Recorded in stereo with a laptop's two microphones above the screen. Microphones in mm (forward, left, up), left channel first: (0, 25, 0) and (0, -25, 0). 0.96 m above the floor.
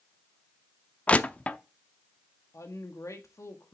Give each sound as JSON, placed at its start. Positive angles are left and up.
{"t": 1.1, "sound": "crushing", "side_deg": 25, "distance_m": 0.7}
{"t": 2.5, "sound": "a woman speaking", "side_deg": 75, "distance_m": 1.4}